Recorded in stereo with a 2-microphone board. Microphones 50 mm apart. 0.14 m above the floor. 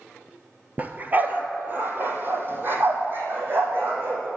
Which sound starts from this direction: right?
A dog barking, at 0.8 s.